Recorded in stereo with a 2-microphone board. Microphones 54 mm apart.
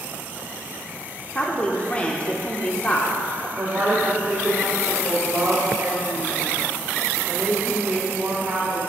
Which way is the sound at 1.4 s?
20° left (ahead or behind).